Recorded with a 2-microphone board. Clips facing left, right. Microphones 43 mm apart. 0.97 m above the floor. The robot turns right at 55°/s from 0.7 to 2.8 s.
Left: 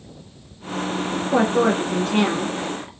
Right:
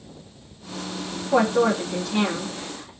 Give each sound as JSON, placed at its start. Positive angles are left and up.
{"t": 1.3, "sound": "a woman speaking", "azimuth_deg": 0, "distance_m": 0.5}